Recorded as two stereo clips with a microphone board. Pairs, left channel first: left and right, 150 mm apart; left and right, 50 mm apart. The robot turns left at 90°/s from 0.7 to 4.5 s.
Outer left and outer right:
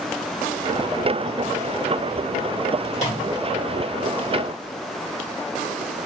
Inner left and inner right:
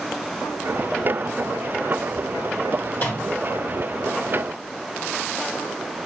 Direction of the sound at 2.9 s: 50° left (ahead or behind).